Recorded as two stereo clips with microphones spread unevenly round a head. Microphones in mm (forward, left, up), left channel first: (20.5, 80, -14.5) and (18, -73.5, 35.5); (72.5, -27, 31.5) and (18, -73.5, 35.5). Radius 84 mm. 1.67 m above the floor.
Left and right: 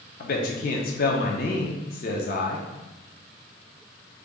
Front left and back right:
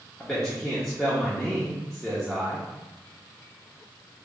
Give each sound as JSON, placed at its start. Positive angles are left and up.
{"t": 0.2, "sound": "a man speaking", "azimuth_deg": 130, "distance_m": 0.5}